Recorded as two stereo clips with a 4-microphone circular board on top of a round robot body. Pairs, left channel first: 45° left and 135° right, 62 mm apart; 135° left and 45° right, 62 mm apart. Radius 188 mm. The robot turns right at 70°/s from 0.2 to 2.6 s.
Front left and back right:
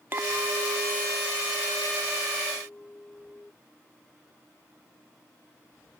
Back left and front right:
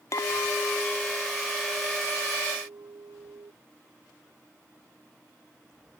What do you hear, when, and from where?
0.1 s a clink: 170° left; by 3.5 s 20° right